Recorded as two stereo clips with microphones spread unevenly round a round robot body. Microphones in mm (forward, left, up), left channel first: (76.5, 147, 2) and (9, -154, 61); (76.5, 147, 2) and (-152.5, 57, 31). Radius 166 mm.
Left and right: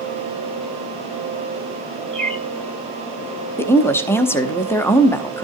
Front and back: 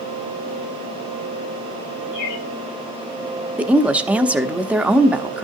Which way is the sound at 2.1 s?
10° right.